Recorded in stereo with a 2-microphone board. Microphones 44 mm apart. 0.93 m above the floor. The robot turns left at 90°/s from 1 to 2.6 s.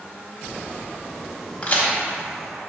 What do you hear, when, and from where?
1.6 s a crack: 25° left (ahead or behind), 1.2 m; by 1.9 s 40° left (ahead or behind), 1.2 m